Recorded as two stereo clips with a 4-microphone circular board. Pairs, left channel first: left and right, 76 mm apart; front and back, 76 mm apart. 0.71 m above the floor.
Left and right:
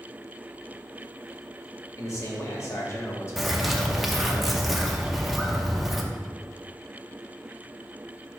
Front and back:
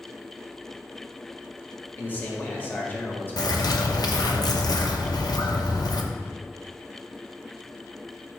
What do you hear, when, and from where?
2.0 s a man speaking: 55° left, 1.4 m
3.4 s a bird: straight ahead, 0.7 m